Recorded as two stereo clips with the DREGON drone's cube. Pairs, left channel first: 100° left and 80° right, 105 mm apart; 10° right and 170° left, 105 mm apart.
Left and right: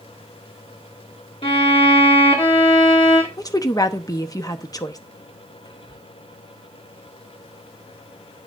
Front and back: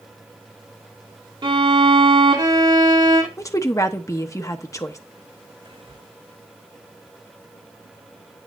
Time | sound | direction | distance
1.4 | a violin | 130° left | 1.7 m
3.4 | a woman speaking | 45° left | 0.8 m
5.7 | whispering | 135° left | 1.1 m